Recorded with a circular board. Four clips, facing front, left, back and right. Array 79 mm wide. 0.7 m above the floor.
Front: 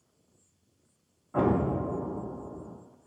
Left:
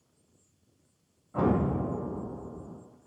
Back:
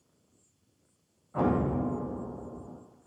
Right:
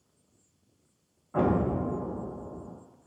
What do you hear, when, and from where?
1.3 s an explosion: 45° right, 0.6 m